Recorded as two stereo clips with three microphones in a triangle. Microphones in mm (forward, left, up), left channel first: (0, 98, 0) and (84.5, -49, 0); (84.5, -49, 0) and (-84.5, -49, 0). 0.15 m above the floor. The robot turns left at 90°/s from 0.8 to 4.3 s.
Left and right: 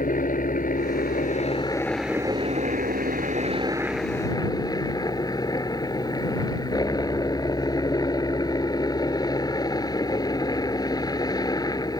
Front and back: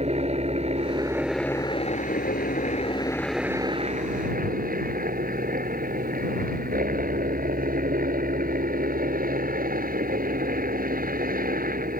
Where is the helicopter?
140° left; by 12.0 s 175° right.